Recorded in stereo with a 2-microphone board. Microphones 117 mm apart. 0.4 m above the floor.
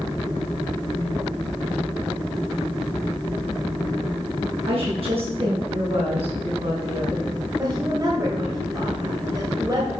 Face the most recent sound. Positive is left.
turn(degrees=-35)  # may be behind; listen again after turning